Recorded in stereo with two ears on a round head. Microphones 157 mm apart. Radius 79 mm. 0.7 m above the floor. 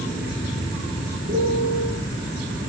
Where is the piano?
45° right (ahead or behind), 5.5 m.